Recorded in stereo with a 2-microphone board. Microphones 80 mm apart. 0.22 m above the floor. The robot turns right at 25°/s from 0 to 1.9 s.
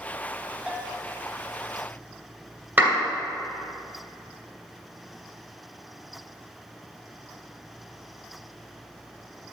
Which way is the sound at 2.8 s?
25° right (ahead or behind).